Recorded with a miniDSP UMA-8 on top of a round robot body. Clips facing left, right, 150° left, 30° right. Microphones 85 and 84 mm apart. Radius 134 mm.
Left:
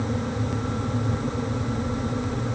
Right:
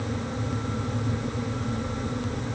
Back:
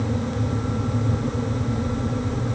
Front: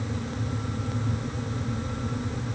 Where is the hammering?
I don't hear hammering.